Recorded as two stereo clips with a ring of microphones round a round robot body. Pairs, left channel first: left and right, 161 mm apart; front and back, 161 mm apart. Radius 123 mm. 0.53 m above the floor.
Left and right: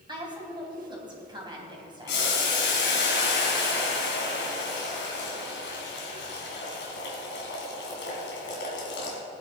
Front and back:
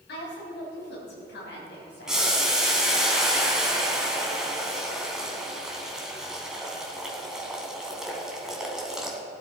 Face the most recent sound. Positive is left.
turn(degrees=95)